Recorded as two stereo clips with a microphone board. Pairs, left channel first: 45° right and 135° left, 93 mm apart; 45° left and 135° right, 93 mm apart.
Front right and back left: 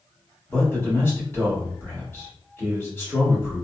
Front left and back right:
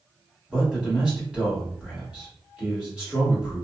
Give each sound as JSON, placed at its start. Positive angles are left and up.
{"t": 0.5, "sound": "a man speaking", "azimuth_deg": -70, "distance_m": 1.4}